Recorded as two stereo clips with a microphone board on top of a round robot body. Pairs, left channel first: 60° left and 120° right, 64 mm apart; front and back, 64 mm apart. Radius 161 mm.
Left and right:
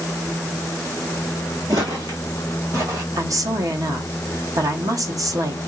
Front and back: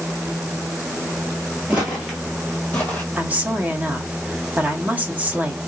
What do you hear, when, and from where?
1.7 s footsteps: 120° right, 0.6 m; by 3.0 s 65° right, 1.0 m
3.2 s a woman speaking: 115° right, 1.3 m